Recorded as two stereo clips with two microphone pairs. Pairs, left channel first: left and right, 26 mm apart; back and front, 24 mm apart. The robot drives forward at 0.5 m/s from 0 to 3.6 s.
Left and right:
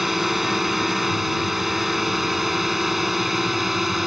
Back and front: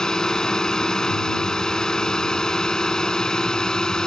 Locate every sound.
0.0 s a drone: 160° right; by 4.1 s 165° right